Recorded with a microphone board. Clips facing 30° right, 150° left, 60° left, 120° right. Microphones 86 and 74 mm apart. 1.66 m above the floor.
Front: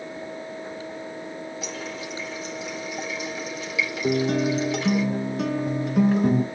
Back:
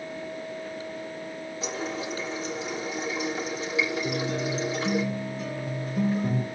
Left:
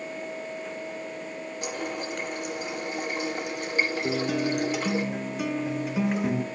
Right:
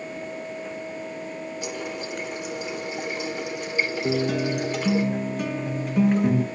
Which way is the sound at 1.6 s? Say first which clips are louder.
Back 2 dB, left 2 dB; 95° left.